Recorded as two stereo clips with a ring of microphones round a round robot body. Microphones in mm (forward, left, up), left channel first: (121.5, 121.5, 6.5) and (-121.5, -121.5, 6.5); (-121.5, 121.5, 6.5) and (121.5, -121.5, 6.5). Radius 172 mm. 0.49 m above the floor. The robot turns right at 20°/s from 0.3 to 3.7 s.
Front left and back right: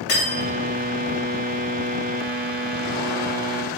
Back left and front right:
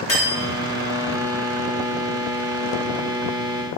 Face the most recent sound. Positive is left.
turn(degrees=130)